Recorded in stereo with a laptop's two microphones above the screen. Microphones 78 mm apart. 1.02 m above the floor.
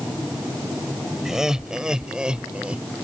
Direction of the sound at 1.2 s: 5° right (ahead or behind).